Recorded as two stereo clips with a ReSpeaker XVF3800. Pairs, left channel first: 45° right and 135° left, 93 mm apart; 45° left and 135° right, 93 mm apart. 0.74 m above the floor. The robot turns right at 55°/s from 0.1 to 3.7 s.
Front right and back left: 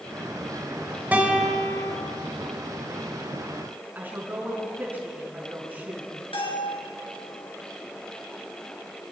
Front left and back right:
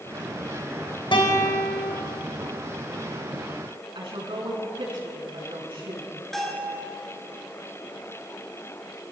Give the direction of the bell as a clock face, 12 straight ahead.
1 o'clock.